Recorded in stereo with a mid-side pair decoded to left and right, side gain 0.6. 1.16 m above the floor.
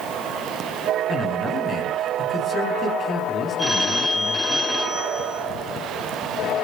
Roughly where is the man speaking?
Ahead left.